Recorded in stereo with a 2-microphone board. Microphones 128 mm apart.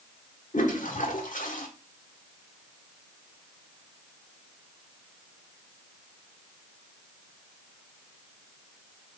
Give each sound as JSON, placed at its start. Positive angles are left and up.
{"t": 0.5, "sound": "a toilet flushing", "side_deg": 70, "distance_m": 1.4}